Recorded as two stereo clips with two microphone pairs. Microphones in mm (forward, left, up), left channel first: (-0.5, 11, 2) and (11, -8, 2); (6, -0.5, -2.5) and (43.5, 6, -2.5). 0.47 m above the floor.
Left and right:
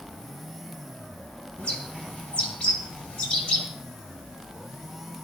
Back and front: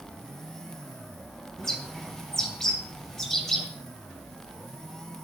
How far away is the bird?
About 3 m.